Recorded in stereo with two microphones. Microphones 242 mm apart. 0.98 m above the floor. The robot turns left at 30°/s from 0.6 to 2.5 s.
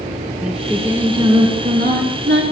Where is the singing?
Straight ahead, 2 m; by 2.4 s 55° right, 2 m.